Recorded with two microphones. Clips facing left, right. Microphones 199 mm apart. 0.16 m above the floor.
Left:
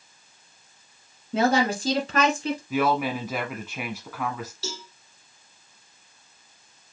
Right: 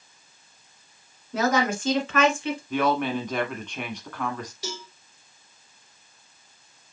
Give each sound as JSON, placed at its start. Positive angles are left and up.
{"t": 1.3, "sound": "a woman speaking", "side_deg": 25, "distance_m": 1.3}
{"t": 2.7, "sound": "a woman speaking", "side_deg": 5, "distance_m": 1.0}
{"t": 4.6, "sound": "a cowbell", "side_deg": -15, "distance_m": 2.5}